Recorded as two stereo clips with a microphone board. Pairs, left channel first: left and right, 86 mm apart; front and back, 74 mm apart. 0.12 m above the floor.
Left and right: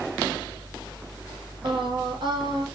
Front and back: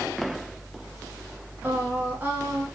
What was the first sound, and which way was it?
Singing, 115° right.